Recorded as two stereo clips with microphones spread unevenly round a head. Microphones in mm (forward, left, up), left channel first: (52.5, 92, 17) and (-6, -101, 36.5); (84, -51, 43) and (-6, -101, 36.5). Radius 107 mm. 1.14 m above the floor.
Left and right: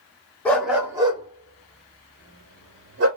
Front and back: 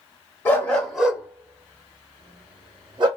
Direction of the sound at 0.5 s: 10° right.